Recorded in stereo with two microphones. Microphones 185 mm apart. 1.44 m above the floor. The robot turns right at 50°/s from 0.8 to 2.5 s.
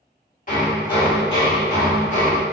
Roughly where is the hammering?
Ahead left.